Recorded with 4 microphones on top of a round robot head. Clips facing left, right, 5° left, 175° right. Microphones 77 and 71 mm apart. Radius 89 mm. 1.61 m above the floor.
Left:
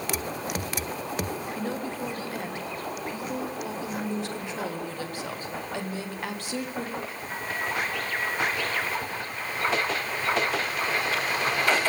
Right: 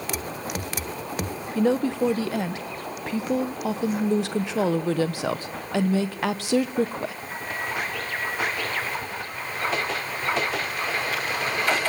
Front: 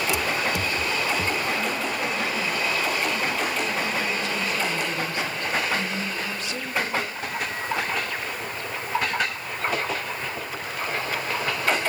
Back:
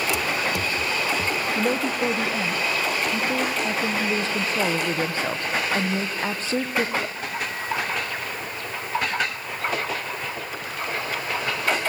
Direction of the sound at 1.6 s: 110° right.